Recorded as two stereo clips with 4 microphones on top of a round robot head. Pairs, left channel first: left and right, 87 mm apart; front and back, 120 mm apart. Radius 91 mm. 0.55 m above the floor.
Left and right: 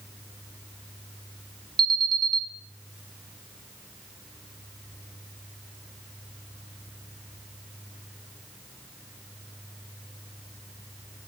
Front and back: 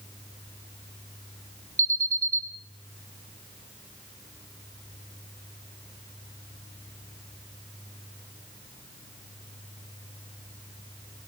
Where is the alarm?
115° right, 1.4 m.